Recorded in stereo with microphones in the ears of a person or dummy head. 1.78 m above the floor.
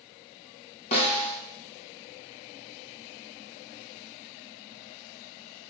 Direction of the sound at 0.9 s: 30° left (ahead or behind).